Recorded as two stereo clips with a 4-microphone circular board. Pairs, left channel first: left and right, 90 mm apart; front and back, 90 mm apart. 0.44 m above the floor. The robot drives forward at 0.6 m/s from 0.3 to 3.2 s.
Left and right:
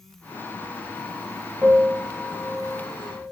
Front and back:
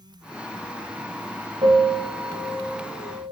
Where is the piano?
Straight behind, 2 m.